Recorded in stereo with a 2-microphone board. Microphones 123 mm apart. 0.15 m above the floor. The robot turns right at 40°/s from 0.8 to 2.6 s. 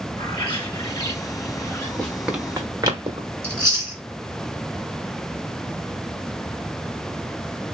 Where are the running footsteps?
10° left (ahead or behind), 1.7 m; by 3.3 s 35° right (ahead or behind), 1.9 m.